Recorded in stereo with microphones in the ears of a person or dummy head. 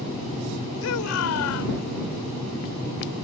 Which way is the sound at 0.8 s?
80° left.